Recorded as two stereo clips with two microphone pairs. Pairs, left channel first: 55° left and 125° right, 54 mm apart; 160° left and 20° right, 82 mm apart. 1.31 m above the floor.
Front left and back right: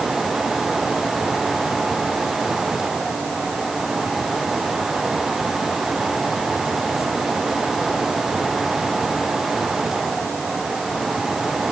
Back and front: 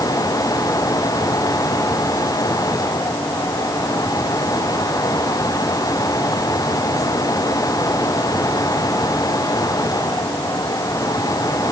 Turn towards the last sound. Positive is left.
No sound to turn to.